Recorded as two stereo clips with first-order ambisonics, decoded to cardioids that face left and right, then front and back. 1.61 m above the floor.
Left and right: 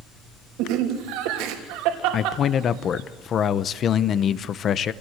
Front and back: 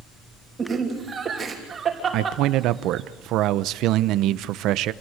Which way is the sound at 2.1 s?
145° left.